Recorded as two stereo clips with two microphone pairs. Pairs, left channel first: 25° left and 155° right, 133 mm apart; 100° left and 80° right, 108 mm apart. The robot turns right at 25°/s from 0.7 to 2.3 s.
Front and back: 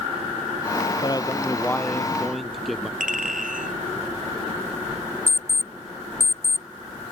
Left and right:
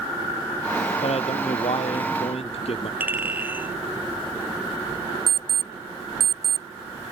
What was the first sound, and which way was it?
A man speaking, 85° left.